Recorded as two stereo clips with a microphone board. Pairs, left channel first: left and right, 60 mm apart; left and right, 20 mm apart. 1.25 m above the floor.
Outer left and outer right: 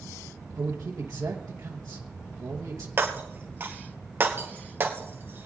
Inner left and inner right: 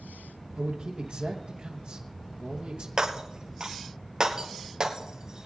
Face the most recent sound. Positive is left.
turn(degrees=-40)  # may be behind; listen again after turning